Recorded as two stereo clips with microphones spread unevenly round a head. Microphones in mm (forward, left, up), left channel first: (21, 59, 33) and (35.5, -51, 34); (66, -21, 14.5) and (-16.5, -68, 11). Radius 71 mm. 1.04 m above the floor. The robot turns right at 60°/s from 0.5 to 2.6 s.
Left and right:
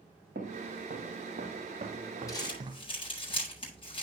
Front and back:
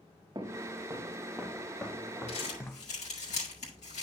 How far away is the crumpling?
About 7.5 m.